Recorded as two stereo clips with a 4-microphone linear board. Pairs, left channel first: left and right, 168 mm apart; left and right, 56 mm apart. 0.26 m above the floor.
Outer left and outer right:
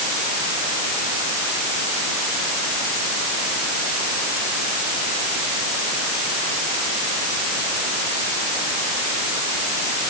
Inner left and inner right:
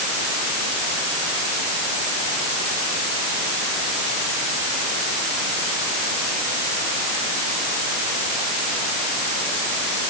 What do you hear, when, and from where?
Only background noise.